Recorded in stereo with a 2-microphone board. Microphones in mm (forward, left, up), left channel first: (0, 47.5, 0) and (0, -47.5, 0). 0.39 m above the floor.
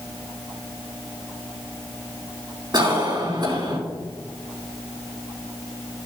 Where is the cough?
50° right (ahead or behind), 4 m.